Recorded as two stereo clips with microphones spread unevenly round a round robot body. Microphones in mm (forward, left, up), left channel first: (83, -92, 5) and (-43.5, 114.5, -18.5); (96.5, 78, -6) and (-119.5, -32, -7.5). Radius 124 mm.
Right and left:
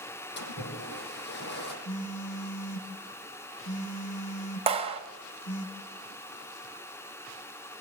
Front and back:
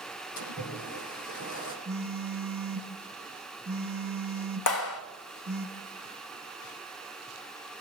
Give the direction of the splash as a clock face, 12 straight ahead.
12 o'clock.